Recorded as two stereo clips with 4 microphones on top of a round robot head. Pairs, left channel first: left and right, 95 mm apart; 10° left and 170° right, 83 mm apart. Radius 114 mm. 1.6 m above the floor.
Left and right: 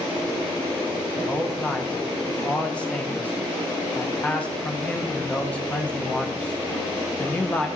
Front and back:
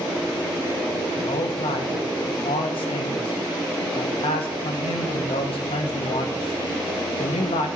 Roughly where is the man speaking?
Ahead.